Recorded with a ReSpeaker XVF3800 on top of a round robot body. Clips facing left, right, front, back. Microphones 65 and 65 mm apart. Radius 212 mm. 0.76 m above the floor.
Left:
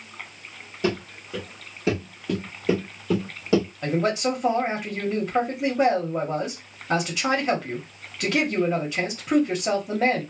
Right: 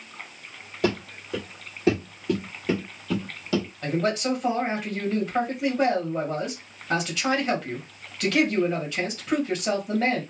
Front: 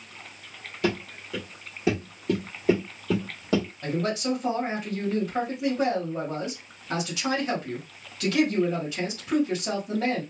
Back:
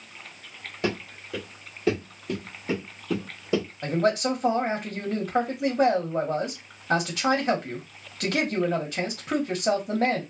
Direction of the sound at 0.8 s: 120° right.